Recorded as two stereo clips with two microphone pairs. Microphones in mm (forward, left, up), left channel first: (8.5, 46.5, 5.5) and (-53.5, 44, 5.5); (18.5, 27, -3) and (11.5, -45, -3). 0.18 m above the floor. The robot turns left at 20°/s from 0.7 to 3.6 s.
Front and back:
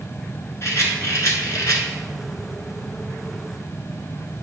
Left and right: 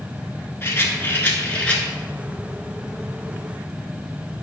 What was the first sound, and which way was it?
A rattle, 35° left.